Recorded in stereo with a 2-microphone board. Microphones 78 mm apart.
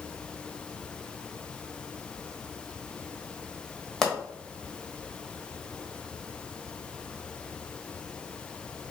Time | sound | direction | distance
4.0 | a pop | 5° left (ahead or behind) | 1.1 m